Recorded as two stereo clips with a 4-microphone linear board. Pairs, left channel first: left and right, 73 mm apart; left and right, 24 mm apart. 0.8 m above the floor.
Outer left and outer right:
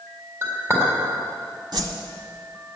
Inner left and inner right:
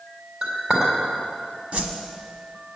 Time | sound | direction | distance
0.4 | a clink | 30° right (ahead or behind) | 4 m
1.7 | a whoosh | 70° right (ahead or behind) | 1.4 m